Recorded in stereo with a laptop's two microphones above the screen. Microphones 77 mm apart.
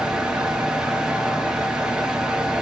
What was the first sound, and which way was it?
A fan, 10° right (ahead or behind).